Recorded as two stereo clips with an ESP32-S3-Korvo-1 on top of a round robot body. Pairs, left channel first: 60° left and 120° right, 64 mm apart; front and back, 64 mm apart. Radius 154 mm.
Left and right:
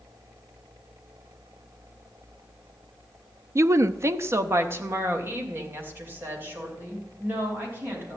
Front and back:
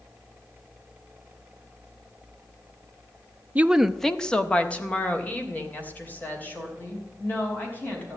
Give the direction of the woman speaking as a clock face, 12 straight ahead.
4 o'clock.